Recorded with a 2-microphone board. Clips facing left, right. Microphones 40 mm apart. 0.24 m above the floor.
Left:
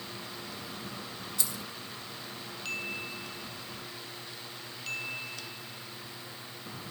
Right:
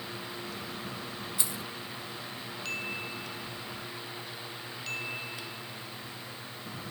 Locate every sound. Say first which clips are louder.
1.4 s keys jangling: even; 20° right (ahead or behind), 0.7 m